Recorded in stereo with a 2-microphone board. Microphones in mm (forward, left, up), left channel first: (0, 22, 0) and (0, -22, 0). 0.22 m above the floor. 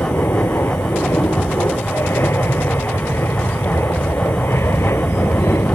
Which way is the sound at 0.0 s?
65° left (ahead or behind).